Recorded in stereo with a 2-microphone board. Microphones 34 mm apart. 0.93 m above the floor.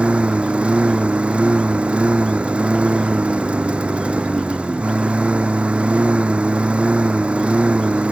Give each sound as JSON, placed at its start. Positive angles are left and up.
{"t": 0.0, "sound": "a lawn mower", "side_deg": -35}